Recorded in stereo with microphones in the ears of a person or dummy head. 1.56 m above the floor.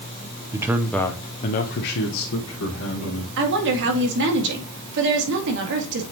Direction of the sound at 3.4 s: 65° right (ahead or behind).